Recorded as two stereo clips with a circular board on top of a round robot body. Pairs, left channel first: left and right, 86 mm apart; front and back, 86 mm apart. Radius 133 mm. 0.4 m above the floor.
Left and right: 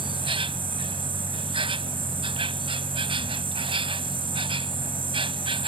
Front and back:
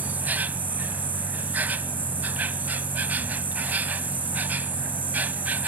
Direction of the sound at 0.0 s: 110° right.